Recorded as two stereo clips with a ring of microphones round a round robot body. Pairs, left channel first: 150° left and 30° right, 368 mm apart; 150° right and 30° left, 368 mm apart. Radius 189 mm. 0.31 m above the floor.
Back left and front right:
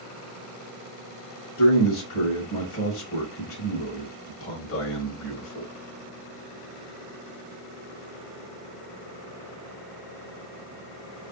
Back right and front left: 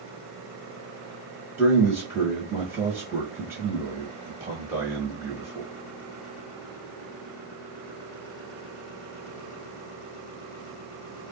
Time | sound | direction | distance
1.6 | a man speaking | 110° left | 1.2 m